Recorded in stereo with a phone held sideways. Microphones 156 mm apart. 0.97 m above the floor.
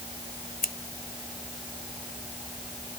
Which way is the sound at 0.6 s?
70° left (ahead or behind).